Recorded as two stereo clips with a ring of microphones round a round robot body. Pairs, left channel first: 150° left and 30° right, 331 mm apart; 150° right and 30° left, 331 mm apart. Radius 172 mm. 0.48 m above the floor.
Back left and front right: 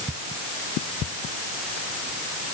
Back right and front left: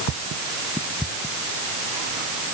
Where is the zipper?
I don't hear a zipper.